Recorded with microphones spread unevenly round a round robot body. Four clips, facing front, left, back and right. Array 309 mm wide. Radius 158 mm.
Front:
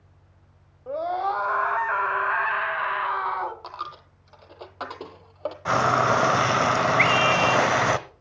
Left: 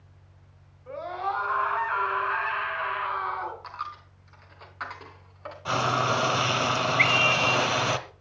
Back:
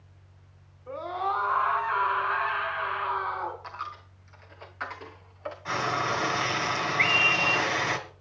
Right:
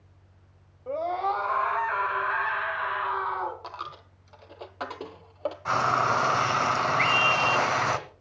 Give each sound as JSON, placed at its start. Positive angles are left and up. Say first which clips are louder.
{"t": 0.9, "sound": "a scream", "louder": "right 4 dB, front 4 dB", "azimuth_deg": -40, "distance_m": 3.5}
{"t": 3.6, "sound": "a dropped coin", "louder": "left 1 dB, front 2 dB", "azimuth_deg": -50, "distance_m": 1.3}
{"t": 5.7, "sound": "frying", "louder": "right 1 dB, front 8 dB", "azimuth_deg": 15, "distance_m": 1.4}
{"t": 7.0, "sound": "a scream", "louder": "right 1 dB, front 7 dB", "azimuth_deg": -5, "distance_m": 3.5}